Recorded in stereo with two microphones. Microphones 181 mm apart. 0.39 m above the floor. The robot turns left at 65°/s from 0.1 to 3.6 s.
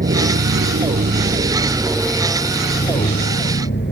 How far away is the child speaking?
I don't hear a child speaking.